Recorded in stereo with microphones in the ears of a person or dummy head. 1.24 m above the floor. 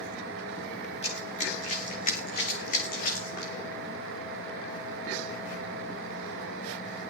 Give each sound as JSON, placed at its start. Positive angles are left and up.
{"t": 1.0, "sound": "running footsteps", "side_deg": 25, "distance_m": 7.5}